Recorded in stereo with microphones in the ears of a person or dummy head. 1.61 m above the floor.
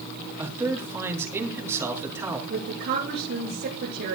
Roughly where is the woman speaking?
Right.